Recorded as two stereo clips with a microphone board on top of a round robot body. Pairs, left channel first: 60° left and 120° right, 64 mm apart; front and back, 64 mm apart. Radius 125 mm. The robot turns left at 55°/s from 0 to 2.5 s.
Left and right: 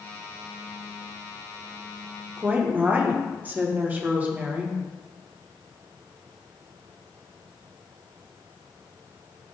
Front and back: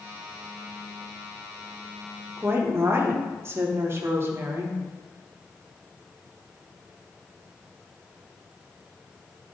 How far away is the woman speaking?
About 1.7 m.